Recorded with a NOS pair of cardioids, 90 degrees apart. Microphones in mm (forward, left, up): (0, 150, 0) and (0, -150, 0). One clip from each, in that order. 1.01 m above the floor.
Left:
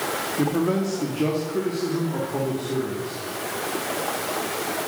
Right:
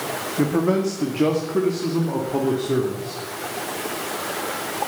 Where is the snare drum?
I don't hear a snare drum.